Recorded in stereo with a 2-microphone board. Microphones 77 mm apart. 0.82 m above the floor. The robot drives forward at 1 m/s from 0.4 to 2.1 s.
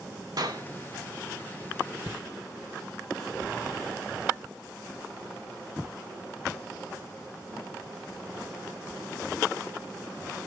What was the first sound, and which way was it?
A clap, 60° right (ahead or behind).